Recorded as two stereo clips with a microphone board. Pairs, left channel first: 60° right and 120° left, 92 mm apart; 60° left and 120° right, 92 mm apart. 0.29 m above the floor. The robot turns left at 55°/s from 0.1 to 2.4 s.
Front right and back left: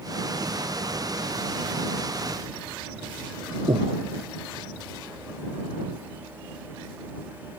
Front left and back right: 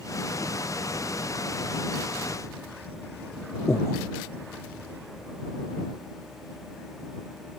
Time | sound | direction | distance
3.7 | breathing | 120° left | ?